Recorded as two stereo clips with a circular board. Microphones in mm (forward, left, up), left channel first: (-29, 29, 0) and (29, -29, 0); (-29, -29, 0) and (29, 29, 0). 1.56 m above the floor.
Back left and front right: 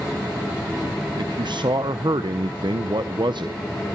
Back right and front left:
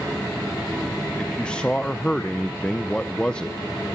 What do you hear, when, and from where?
1.2 s a man speaking: 55° right, 0.8 m